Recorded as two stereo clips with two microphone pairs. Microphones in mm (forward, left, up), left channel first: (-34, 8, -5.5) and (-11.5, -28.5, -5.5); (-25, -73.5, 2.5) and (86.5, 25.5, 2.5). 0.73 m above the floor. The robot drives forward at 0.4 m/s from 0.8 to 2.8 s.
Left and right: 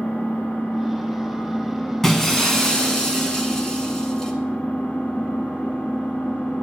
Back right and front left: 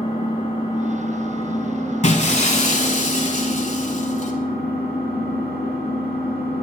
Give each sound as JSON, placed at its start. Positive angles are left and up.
{"t": 0.0, "sound": "an engine running", "azimuth_deg": 175, "distance_m": 2.0}
{"t": 2.0, "sound": "breaking glass", "azimuth_deg": -160, "distance_m": 0.9}